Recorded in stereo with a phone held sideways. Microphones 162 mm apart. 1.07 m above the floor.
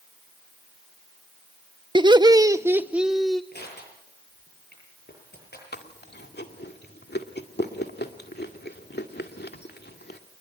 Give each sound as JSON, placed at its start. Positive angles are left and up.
{"t": 1.9, "sound": "laughter", "side_deg": -30, "distance_m": 0.8}
{"t": 3.5, "sound": "crushing", "side_deg": 75, "distance_m": 9.5}
{"t": 5.7, "sound": "chewing", "side_deg": 75, "distance_m": 2.0}